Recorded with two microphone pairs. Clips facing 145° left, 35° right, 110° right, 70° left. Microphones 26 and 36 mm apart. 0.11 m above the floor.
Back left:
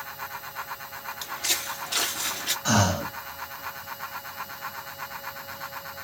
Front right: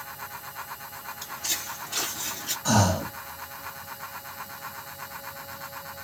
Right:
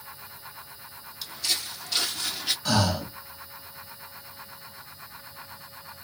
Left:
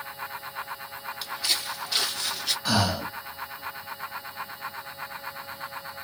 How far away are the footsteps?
About 1.3 m.